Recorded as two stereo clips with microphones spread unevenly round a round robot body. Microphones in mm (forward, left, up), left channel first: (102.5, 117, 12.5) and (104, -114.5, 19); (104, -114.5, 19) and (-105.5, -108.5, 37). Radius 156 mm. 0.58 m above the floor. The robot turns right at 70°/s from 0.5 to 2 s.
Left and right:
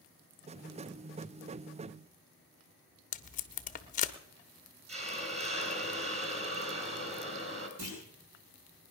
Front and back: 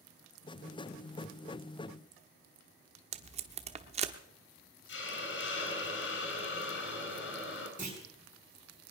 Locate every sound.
3.1 s tape being pulled: 125° left, 0.8 m
4.9 s a hiss: 30° right, 4.5 m
7.8 s a clunk: 130° right, 7 m